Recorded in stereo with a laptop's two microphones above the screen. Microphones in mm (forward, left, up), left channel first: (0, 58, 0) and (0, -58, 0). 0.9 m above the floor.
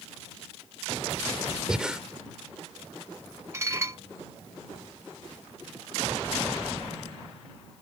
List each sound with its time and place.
1.7 s breathing: 5° right (ahead or behind)
3.5 s dishes clattering: 25° right (ahead or behind)